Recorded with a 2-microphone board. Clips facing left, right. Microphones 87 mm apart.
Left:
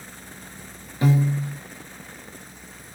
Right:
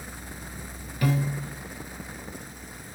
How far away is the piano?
About 0.6 m.